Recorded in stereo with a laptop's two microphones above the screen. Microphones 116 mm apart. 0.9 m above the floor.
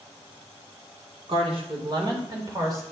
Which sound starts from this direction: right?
A woman speaking, at 1.3 s.